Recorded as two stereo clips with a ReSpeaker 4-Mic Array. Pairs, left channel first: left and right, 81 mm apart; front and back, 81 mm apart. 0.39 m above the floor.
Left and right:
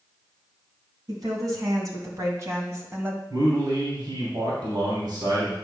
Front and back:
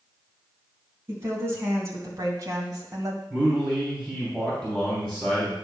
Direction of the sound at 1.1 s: 125° right.